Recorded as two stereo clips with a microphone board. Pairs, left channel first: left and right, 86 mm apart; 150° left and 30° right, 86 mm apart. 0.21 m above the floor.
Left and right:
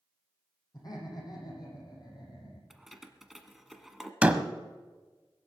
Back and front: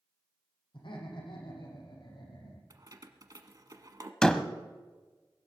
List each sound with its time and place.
0.7 s laughter: 135° left, 7.5 m; by 2.6 s 125° left, 8 m
2.7 s keys jangling: 5° right, 1.2 m
4.2 s a door slam: 145° right, 0.9 m